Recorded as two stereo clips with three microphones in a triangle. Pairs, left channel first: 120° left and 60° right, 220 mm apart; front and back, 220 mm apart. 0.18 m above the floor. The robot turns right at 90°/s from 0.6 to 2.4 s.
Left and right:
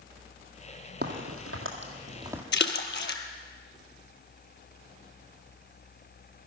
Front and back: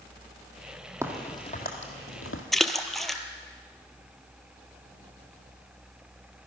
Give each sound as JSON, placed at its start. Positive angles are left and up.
{"t": 1.0, "sound": "a crack", "azimuth_deg": -105, "distance_m": 1.8}
{"t": 2.5, "sound": "a splash", "azimuth_deg": 90, "distance_m": 0.7}